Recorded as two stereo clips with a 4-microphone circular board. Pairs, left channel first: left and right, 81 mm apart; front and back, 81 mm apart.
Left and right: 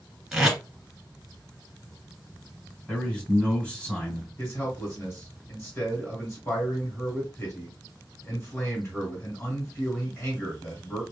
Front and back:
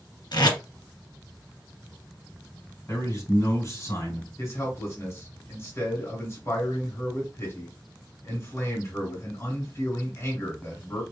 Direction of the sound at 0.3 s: Straight ahead.